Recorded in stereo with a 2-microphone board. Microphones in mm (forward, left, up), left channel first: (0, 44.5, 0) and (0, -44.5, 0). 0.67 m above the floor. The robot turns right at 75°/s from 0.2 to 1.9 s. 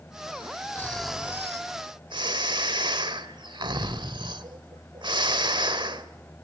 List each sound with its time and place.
0.8 s snoring: 155° left, 1.4 m; by 6.1 s 120° right, 1.4 m